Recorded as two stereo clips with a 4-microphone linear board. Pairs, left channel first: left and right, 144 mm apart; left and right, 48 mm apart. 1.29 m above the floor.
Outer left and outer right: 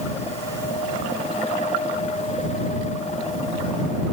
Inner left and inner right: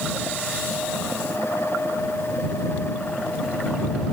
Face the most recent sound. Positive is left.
No sound to turn to.